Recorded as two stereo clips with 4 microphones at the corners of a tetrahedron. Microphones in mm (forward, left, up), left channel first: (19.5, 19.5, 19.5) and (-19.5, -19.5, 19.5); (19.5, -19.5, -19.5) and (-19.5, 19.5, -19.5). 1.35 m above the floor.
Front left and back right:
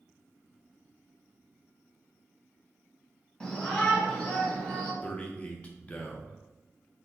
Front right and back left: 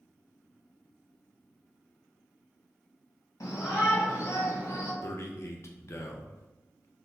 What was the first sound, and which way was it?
A shout, 30° right.